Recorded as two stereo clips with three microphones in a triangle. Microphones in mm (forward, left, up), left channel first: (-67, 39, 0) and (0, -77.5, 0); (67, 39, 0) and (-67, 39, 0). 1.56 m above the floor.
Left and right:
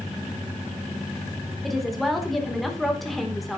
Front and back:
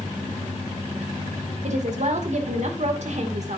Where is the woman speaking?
150° right, 2 m.